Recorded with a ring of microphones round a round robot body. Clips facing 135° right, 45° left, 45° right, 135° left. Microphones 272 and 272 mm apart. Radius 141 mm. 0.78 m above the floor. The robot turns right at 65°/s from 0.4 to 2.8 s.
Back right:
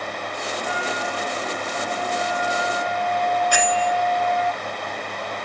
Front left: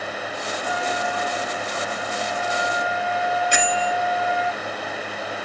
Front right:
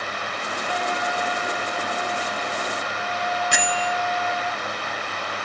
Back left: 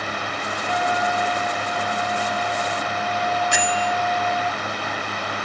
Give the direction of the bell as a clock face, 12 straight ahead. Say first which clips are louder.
Back right 1 dB, back left 3 dB; 1 o'clock.